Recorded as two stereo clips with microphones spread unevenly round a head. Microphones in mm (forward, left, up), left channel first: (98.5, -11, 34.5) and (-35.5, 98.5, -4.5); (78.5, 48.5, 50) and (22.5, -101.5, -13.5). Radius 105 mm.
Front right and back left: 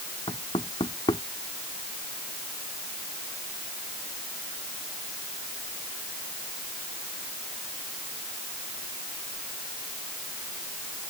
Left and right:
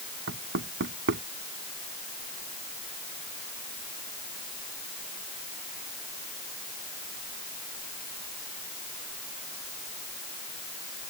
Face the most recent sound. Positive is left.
turn(degrees=-110)